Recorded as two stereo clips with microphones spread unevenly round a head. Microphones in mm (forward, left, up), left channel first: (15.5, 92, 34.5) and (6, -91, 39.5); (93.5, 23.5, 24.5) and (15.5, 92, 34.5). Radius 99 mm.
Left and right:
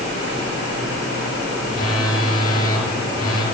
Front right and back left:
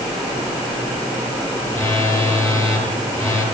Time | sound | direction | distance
1.7 | a phone buzzing | 20° left | 6.5 m